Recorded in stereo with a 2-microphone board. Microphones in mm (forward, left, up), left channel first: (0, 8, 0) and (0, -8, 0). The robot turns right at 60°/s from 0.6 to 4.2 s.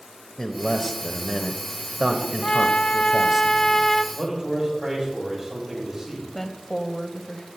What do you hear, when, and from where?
0.4 s a man speaking: 140° left, 1.0 m; by 3.4 s 50° right, 1.0 m
2.4 s a trumpet: 65° left, 0.5 m; by 4.0 s 165° left, 0.5 m
4.1 s a man speaking: 20° right (ahead or behind), 7.5 m; by 6.2 s 15° right (ahead or behind), 7.5 m
6.3 s a woman speaking: 15° left (ahead or behind), 1.4 m